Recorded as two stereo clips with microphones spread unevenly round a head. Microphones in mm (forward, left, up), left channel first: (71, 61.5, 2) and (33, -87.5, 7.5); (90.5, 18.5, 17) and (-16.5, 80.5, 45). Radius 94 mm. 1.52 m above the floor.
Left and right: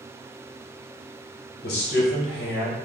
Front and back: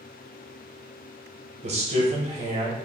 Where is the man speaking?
120° left, 1.1 m.